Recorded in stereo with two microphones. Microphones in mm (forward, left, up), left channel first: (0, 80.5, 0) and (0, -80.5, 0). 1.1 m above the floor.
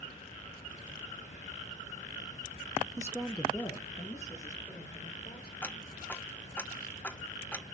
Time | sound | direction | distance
3.0 | a woman speaking | 25° right (ahead or behind) | 0.5 m
5.6 | ticking | 10° left (ahead or behind) | 0.5 m